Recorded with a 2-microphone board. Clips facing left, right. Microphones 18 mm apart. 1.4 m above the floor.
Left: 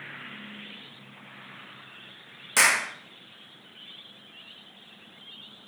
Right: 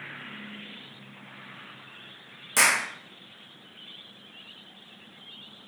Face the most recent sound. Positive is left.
turn(degrees=10)  # may be behind; listen again after turning